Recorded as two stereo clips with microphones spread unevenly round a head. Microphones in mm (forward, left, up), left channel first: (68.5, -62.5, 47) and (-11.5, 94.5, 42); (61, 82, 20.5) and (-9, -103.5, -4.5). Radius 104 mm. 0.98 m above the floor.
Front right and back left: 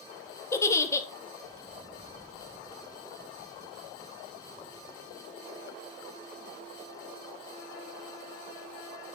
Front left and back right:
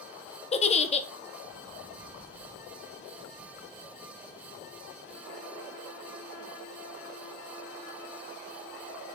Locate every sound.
0.5 s a giggle: 10° left, 0.7 m